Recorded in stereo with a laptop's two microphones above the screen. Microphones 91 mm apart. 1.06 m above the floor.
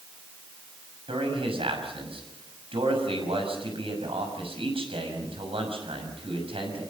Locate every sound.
1.1 s a man speaking: 85° right, 6 m